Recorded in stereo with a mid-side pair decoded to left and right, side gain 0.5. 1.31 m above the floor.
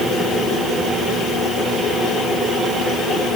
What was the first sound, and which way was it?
Only background noise.